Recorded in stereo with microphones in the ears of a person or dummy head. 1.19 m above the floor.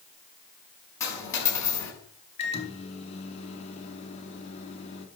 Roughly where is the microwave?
Left.